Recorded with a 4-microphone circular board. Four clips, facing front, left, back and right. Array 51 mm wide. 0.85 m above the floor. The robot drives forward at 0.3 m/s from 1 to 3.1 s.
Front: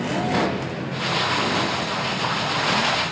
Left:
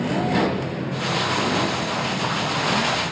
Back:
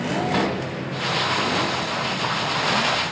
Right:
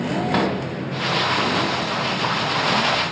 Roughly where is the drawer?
Right.